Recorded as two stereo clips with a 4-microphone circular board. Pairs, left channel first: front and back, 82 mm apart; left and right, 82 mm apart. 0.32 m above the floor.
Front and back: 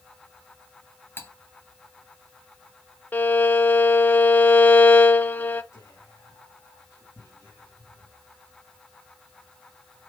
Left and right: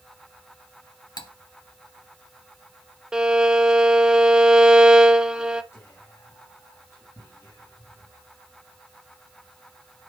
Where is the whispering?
40° left, 3 m.